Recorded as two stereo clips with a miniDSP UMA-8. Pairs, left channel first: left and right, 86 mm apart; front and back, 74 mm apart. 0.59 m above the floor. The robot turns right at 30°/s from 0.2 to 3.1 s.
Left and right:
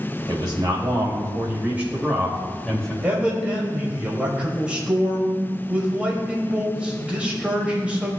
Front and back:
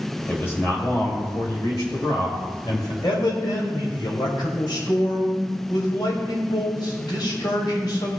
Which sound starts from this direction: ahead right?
A man speaking, at 0.3 s.